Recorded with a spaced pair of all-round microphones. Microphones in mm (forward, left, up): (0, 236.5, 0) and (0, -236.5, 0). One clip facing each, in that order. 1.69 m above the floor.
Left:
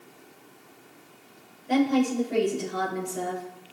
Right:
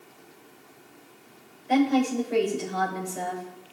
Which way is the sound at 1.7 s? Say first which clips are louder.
Even; 70° left (ahead or behind).